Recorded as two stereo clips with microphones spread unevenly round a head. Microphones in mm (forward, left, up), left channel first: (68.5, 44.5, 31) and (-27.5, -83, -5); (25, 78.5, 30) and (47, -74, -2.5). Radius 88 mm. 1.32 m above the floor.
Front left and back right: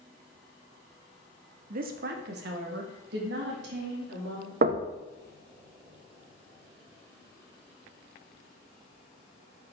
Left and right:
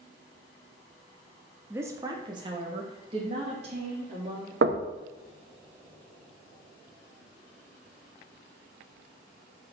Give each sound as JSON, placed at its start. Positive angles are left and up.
{"t": 1.7, "sound": "a woman speaking", "azimuth_deg": -155, "distance_m": 0.8}
{"t": 4.6, "sound": "knocking", "azimuth_deg": -95, "distance_m": 0.8}